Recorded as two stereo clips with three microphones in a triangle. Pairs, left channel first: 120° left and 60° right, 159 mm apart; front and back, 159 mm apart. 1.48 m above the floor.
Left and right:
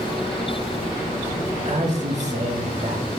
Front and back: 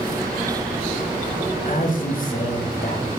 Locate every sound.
1.6 s a man speaking: 25° right, 0.7 m